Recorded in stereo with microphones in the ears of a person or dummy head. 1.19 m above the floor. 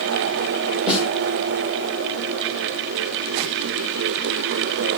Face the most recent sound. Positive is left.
turn(degrees=-5)  # may be behind; listen again after turning